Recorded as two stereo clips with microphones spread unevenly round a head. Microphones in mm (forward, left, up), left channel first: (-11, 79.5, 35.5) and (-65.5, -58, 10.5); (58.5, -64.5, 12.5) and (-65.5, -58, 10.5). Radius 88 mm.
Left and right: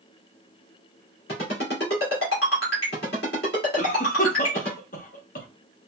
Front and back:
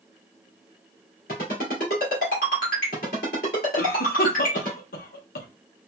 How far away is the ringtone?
About 1.9 m.